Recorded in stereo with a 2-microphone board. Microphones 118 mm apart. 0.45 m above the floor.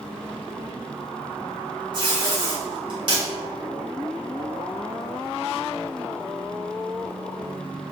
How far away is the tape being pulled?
About 1.9 m.